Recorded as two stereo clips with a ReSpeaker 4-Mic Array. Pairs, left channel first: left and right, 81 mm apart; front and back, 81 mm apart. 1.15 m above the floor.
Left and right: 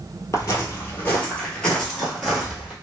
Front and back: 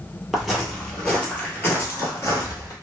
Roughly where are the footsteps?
Left.